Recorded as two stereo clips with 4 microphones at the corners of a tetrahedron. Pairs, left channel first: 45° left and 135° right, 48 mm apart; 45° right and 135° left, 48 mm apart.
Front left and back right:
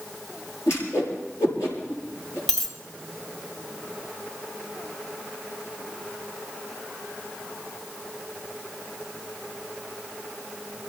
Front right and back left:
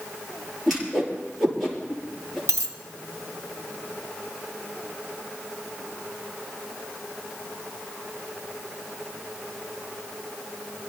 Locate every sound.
0.7 s a whoosh: 45° left, 6.5 m
2.5 s a dropped coin: 125° left, 2.5 m